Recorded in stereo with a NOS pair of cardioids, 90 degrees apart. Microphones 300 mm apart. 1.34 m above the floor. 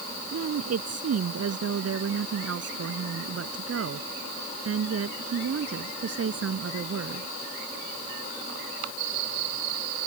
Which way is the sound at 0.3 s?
55° right.